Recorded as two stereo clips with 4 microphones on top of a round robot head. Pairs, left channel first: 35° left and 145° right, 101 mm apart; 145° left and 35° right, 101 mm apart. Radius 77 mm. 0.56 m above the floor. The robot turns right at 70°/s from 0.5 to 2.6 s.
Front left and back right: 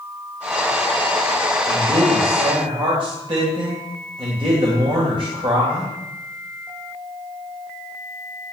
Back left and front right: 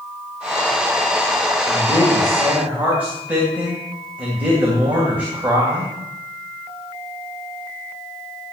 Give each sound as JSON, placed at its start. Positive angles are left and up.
{"t": 1.7, "sound": "a man speaking", "azimuth_deg": -175, "distance_m": 3.5}